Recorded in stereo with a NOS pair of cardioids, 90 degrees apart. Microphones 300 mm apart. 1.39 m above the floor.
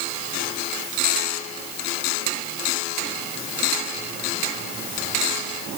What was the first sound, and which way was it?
Only background noise.